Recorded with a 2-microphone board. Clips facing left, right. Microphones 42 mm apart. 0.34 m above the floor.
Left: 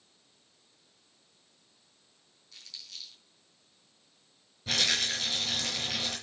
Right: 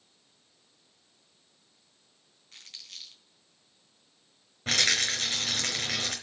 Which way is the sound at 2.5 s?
45° right (ahead or behind).